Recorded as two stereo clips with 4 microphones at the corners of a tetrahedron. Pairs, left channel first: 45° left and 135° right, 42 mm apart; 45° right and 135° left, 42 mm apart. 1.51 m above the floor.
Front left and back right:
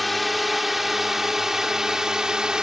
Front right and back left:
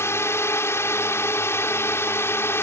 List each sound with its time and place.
0.0 s a drone: 45° right; by 2.6 s 60° right